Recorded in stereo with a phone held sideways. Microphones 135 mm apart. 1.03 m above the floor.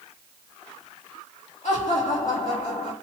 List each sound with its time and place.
1.6 s laughter: 60° left (ahead or behind), 3.5 m